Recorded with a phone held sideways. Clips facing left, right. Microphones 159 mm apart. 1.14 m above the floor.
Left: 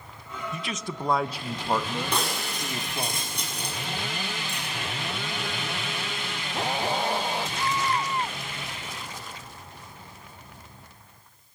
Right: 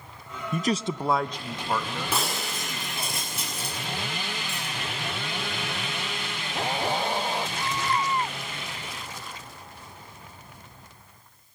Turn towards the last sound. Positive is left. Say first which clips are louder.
# even
turn(degrees=-5)  # may be behind; listen again after turning